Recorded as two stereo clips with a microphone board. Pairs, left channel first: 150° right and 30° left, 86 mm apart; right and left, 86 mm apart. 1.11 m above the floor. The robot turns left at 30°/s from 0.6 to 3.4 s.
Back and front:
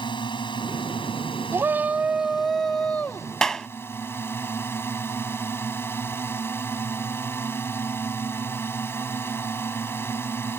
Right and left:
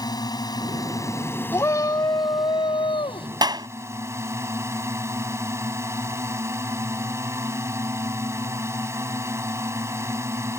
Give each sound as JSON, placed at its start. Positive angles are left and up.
{"t": 0.0, "sound": "a drone", "azimuth_deg": -130}
{"t": 1.5, "sound": "a shout", "azimuth_deg": -30}
{"t": 3.4, "sound": "a clap", "azimuth_deg": 125}